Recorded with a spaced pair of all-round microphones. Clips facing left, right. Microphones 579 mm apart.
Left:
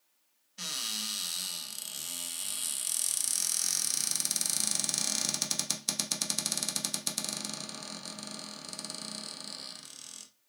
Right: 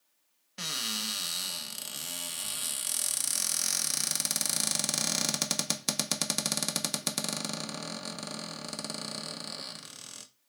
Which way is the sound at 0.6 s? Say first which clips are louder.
Right 6 dB; 75° right (ahead or behind).